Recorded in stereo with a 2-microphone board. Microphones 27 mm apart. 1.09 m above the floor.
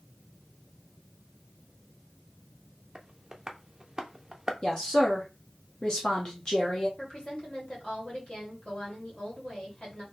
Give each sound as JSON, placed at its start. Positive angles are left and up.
{"t": 3.0, "sound": "tapping", "side_deg": -20, "distance_m": 0.6}
{"t": 4.6, "sound": "a woman speaking", "side_deg": 30, "distance_m": 0.9}
{"t": 7.0, "sound": "a woman speaking", "side_deg": 30, "distance_m": 2.5}